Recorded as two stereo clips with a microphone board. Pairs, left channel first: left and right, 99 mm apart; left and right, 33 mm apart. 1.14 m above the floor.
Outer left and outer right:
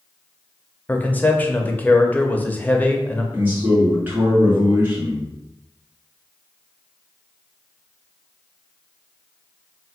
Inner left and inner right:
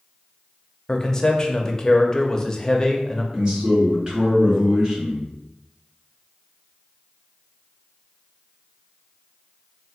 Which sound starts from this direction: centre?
A man speaking, at 0.9 s.